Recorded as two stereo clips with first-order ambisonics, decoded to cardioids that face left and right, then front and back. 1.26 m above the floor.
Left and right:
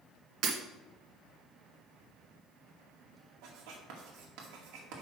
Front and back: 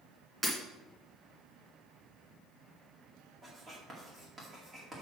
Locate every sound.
0.4 s breaking glass: 100° right, 1.8 m
3.4 s writing: 105° right, 2 m